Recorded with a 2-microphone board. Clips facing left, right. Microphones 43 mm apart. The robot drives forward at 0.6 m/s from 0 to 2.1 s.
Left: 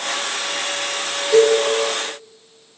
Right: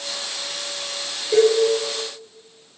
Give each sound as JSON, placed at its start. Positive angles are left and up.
{"t": 1.3, "sound": "a cowbell", "side_deg": -15, "distance_m": 4.0}